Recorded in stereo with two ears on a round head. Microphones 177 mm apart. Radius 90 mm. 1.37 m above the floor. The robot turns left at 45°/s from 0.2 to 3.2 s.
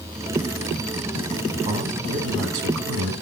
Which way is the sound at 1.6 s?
35° right.